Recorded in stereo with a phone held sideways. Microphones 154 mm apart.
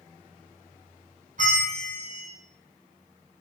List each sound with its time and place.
1.4 s a bell: 60° right (ahead or behind), 1.0 m